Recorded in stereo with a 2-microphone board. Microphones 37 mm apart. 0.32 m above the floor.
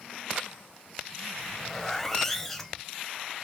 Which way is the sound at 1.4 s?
10° left (ahead or behind).